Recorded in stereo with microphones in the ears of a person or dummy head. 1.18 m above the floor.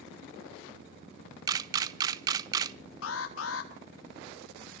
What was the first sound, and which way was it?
A camera shutter, 20° right (ahead or behind).